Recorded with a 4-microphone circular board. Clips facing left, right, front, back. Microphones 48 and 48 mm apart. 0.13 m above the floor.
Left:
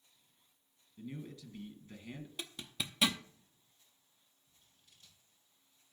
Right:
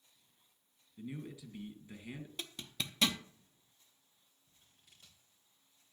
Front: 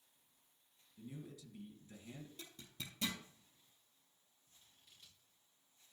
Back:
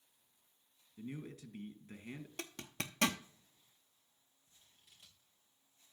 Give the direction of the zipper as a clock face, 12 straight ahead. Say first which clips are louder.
Left 1 dB, back 8 dB; 6 o'clock.